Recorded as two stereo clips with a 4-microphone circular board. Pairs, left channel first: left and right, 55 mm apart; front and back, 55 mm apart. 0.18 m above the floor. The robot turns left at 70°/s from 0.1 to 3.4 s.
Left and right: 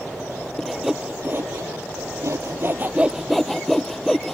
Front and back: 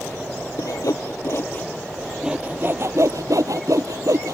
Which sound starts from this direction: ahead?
Sawing, at 0.6 s.